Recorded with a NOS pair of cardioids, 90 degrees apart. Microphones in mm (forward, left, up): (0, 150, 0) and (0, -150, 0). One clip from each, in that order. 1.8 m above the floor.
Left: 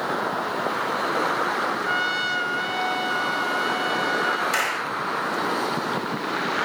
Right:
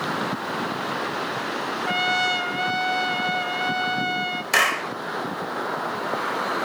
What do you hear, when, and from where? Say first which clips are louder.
1.9 s a trumpet: right 6 dB; 25° right, 0.6 m
4.5 s a clap: right 4 dB; 40° right, 1.4 m